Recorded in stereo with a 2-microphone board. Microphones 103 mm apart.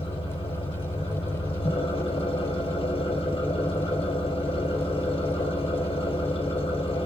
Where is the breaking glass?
I don't hear breaking glass.